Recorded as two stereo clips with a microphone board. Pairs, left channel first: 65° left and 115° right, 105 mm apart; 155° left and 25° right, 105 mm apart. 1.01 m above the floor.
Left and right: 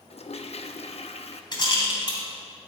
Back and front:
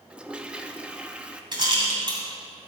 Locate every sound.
0.1 s a toilet flushing: 55° left, 0.6 m
1.5 s a rattle: 20° left, 2.5 m